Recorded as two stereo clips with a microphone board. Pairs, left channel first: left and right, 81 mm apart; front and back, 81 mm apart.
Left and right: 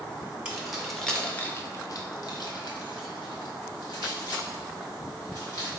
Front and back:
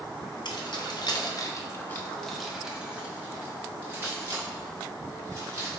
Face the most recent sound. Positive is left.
turn(degrees=130)